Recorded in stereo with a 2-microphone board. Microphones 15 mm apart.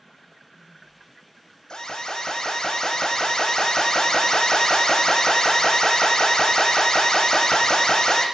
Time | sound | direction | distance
1.7 | an alarm | 50° left (ahead or behind) | 4.5 m